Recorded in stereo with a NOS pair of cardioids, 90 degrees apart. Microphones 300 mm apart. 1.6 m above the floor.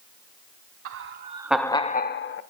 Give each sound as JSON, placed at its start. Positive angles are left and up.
{"t": 0.8, "sound": "laughter", "azimuth_deg": -50, "distance_m": 0.8}